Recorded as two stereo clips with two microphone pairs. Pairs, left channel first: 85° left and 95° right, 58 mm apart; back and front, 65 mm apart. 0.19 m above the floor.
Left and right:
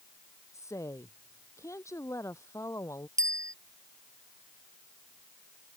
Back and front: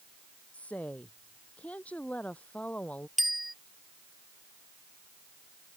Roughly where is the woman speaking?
Behind left.